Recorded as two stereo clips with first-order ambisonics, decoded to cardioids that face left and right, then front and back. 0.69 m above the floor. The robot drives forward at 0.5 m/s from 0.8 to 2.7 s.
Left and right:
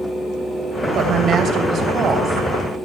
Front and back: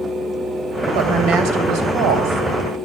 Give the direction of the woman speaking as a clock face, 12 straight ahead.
5 o'clock.